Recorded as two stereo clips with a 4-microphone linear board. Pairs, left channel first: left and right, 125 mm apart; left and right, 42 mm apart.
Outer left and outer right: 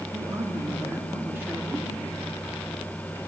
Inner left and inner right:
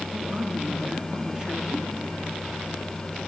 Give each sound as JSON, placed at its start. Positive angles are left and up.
{"t": 0.1, "sound": "a man speaking", "side_deg": -30, "distance_m": 3.5}